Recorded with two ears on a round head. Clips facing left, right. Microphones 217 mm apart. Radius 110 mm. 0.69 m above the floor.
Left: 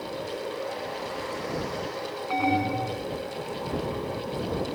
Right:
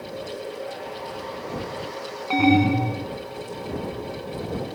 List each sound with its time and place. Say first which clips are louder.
2.3 s an alarm: right 9 dB; 45° right (ahead or behind)